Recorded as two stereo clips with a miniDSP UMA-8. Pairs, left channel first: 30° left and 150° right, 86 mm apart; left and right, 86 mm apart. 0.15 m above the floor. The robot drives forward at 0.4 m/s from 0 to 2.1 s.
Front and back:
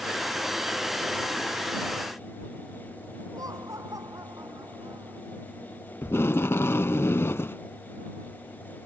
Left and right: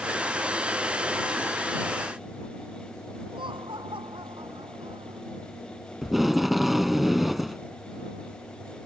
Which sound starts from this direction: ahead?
Tape being pulled, at 6.0 s.